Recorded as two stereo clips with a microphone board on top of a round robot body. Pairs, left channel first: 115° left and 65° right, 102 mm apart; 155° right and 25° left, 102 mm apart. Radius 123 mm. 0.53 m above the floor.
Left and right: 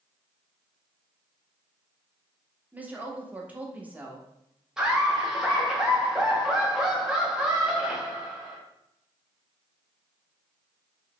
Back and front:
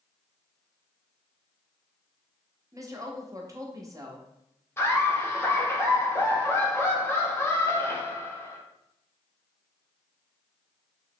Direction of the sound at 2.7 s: 5° right.